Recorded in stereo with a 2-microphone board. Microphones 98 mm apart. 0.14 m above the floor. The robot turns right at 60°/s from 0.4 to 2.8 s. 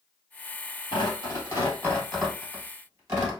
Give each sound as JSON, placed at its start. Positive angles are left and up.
{"t": 0.9, "sound": "tearing paper", "side_deg": 60, "distance_m": 2.5}